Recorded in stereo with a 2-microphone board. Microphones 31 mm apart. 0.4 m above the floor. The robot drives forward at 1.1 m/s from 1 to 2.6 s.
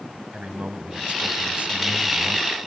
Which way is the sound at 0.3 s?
35° right (ahead or behind).